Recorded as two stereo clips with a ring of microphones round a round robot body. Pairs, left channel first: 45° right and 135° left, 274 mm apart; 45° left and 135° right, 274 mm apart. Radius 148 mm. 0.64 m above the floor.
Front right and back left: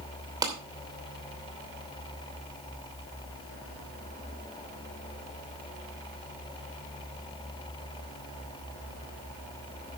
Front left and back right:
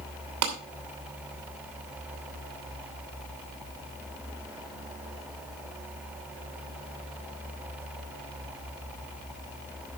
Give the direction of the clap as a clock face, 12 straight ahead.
5 o'clock.